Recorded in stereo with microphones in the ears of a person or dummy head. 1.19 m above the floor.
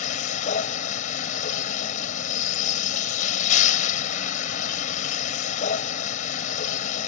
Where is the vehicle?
45° left (ahead or behind).